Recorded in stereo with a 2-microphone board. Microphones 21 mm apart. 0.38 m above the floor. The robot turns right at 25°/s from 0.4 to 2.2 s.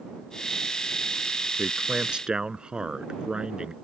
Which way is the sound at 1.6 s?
55° right (ahead or behind).